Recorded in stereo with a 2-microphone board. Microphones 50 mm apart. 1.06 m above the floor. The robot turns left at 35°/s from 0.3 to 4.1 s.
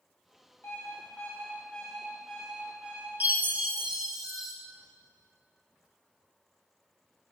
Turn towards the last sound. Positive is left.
turn(degrees=-170)